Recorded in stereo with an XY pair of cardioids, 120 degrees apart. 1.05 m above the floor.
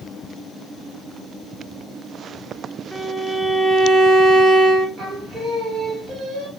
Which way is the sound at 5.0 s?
45° right.